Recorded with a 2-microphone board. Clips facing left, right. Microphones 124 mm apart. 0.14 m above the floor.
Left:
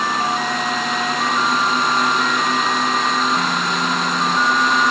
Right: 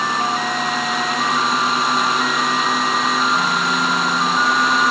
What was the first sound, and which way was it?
Only background noise.